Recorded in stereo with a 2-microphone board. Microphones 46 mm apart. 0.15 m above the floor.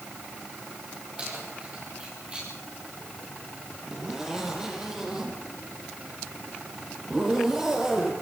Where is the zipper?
10° right (ahead or behind), 5.5 m.